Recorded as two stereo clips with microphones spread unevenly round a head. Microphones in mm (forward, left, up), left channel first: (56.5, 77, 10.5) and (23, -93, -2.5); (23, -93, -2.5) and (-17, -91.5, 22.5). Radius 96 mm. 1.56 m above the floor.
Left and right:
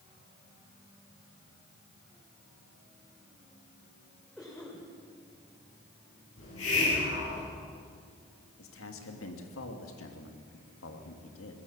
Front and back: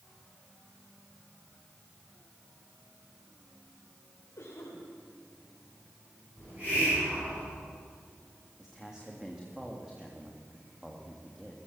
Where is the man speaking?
95° left, 3 m.